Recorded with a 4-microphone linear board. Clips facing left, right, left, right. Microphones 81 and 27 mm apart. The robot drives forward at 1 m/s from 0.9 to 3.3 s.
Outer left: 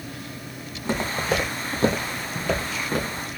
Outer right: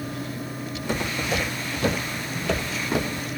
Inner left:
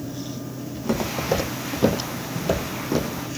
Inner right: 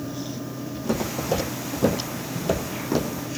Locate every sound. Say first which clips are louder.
0.7 s footsteps: outer left 2 dB, inner left 2 dB; 35° left (ahead or behind), 3 m; by 3.2 s 10° right (ahead or behind), 2 m